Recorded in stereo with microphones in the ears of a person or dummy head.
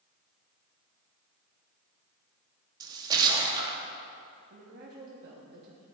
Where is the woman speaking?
55° right (ahead or behind), 1.0 m.